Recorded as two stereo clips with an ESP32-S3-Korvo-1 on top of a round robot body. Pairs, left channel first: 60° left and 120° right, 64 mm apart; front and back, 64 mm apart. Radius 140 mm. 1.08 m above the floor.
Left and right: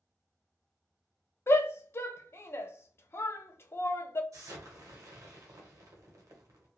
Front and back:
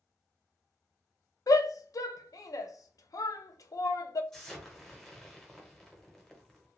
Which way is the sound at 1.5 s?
15° left.